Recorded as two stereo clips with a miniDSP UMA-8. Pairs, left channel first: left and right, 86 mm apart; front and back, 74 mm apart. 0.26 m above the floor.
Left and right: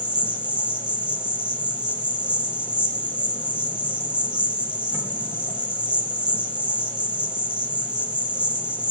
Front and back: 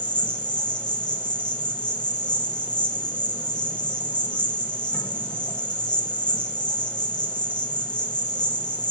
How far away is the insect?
About 1.1 m.